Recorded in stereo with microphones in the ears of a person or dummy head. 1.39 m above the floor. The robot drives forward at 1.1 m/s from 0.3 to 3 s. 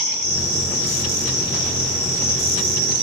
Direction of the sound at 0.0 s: 50° right (ahead or behind).